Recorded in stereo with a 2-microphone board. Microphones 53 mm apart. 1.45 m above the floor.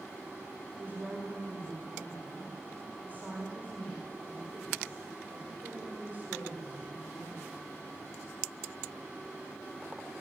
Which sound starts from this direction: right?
A woman speaking, at 0.8 s.